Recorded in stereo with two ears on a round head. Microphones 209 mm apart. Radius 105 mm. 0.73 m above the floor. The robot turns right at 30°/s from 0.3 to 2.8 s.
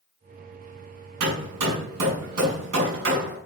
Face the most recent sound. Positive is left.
turn(degrees=-55)  # may be behind; listen again after turning